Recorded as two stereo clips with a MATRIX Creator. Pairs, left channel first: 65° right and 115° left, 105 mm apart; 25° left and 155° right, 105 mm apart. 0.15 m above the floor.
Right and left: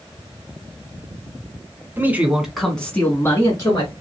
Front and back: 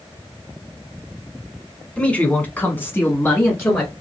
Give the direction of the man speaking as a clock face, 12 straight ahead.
9 o'clock.